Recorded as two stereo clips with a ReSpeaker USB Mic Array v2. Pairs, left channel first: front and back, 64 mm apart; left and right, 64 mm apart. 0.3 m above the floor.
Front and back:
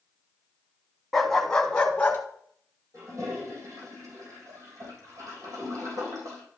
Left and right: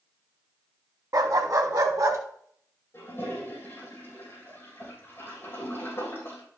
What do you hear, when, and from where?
1.1 s a dog barking: 85° right, 0.9 m; by 2.2 s 65° right, 1.3 m
2.9 s a toilet flushing: 150° left, 4.5 m